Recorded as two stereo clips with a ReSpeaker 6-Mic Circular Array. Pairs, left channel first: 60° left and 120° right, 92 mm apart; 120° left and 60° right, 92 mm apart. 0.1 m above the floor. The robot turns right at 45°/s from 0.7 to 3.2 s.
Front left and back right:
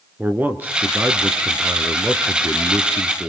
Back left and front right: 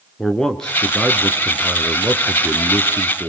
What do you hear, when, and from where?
0.2 s a man speaking: 165° right, 1.7 m; by 3.3 s 50° right, 1.7 m